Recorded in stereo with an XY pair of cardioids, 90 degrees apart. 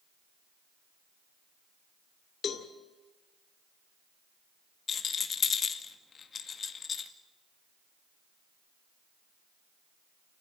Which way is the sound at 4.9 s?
55° left.